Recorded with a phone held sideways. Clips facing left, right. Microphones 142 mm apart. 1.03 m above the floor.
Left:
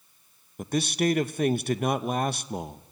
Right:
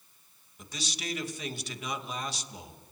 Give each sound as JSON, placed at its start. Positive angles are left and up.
{"t": 0.6, "sound": "a man speaking", "side_deg": 55, "distance_m": 0.8}